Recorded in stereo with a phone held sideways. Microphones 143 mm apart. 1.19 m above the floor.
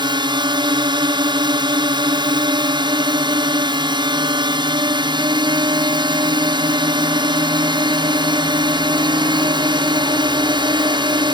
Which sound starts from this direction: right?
A drone, at 0.0 s.